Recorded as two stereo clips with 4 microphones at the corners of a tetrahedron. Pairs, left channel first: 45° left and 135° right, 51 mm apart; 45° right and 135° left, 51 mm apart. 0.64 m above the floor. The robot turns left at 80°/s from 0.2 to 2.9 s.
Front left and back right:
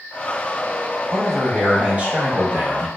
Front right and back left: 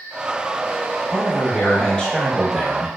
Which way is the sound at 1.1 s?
30° right.